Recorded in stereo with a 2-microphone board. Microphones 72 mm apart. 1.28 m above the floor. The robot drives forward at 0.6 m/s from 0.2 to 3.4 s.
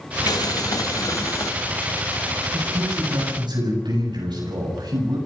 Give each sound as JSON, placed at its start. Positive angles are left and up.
{"t": 0.3, "sound": "boiling", "side_deg": 65, "distance_m": 1.5}
{"t": 2.5, "sound": "a man speaking", "side_deg": -85, "distance_m": 9.0}